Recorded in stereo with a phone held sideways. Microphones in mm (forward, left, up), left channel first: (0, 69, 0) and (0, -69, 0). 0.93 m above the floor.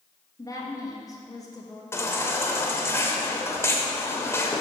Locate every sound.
0.4 s a woman speaking: 25° left (ahead or behind), 1.4 m
1.9 s a baby crying: 20° left (ahead or behind), 0.9 m